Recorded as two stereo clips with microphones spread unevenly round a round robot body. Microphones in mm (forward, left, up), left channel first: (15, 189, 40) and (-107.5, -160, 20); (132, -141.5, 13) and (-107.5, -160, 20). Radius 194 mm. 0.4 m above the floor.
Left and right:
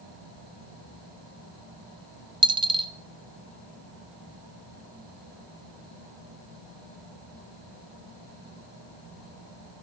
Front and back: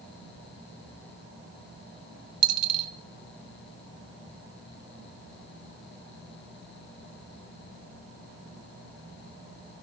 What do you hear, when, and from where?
2.4 s a dropped coin: 175° left, 0.7 m